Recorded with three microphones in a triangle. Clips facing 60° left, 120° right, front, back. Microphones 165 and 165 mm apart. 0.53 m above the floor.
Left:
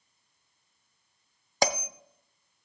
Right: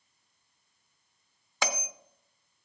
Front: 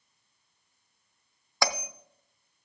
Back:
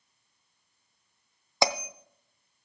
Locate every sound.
1.6 s a bell: 110° left, 0.5 m